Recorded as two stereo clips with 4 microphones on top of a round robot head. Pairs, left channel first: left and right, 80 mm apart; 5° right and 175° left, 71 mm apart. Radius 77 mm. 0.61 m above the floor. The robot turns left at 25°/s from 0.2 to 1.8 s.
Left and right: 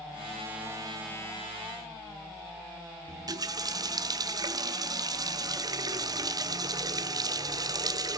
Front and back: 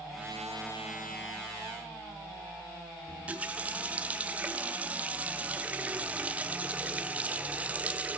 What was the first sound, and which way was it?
A running tap, 120° right.